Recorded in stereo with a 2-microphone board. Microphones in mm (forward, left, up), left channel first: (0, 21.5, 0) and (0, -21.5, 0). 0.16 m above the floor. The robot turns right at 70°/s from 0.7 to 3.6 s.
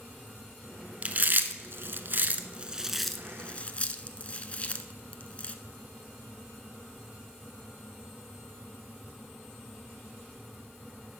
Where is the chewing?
30° right (ahead or behind), 0.6 m; by 5.5 s 30° left (ahead or behind), 0.6 m.